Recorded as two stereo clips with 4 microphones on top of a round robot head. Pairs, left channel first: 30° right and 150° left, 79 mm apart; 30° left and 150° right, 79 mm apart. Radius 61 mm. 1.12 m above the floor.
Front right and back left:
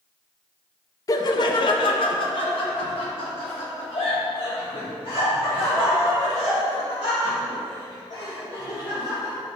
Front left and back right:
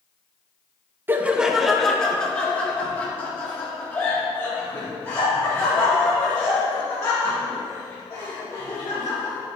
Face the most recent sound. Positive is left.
turn(degrees=-25)